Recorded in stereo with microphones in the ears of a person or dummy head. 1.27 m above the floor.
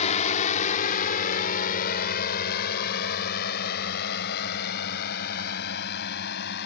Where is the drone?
35° left (ahead or behind); by 6.7 s 55° left (ahead or behind).